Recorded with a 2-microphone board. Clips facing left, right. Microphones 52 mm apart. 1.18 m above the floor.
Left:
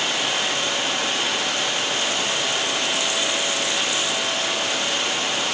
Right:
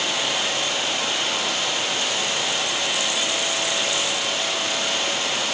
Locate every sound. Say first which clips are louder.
0.0 s running water: left 1 dB; 75° left (ahead or behind), 1.4 m